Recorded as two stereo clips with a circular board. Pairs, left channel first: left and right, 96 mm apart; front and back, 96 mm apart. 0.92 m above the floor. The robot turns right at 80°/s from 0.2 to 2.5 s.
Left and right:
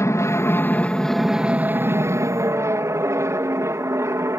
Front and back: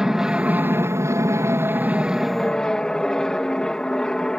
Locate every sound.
0.0 s an aircraft: 100° left; by 4.4 s 75° right